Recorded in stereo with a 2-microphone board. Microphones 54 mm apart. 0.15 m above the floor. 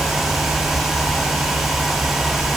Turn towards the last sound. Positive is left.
No sound to turn to.